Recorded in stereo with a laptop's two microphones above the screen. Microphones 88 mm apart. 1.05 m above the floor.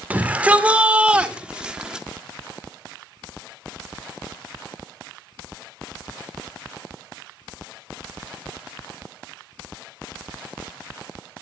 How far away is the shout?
About 3 m.